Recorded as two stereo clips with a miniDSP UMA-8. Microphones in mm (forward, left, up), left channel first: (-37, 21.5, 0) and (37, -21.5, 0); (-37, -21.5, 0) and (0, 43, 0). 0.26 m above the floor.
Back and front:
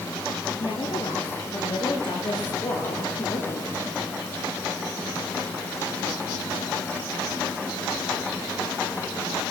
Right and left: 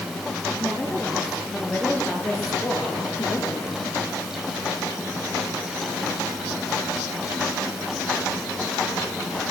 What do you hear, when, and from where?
0.6 s a woman speaking: 160° left, 6 m; by 3.9 s 170° right, 8 m